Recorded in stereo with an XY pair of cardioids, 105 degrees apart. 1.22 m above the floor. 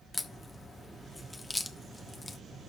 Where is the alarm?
No alarm in this recording.